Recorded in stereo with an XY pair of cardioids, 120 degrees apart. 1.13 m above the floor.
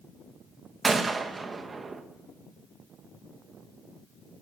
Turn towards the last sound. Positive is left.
turn(degrees=-25)